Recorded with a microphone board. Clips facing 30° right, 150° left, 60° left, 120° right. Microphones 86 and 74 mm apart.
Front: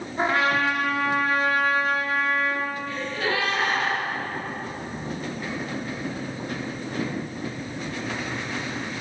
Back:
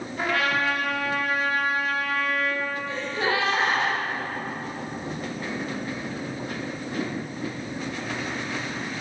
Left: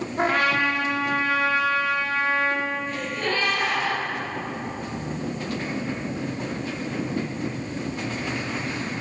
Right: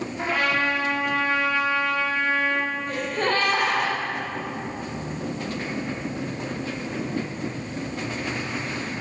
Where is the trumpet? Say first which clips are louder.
Front 3 dB, left 3 dB; 30° left, 2 m.